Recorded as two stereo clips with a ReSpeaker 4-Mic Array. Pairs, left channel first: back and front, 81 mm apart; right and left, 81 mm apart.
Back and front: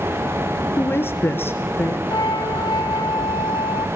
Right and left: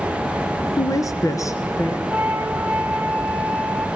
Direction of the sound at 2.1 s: 165° left.